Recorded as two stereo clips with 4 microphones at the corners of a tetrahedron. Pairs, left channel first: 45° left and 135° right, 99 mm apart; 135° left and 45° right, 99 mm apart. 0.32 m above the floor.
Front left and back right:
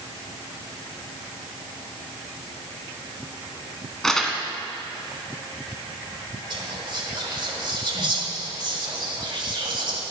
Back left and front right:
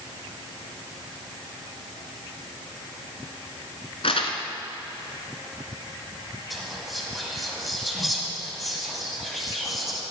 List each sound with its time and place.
4.0 s crumpling: 130° left, 1.2 m
6.5 s whispering: 135° right, 1.8 m